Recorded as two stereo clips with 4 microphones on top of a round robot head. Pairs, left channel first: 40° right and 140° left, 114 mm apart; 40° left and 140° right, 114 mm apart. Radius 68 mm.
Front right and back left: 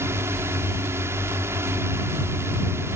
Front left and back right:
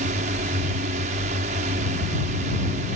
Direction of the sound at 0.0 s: 150° right.